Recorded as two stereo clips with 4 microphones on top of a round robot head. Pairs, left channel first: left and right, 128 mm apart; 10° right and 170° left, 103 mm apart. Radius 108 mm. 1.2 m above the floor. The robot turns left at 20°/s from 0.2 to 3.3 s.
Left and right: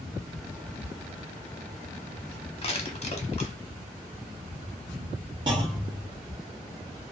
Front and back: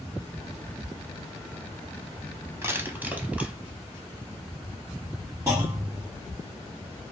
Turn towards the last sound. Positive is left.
turn(degrees=-120)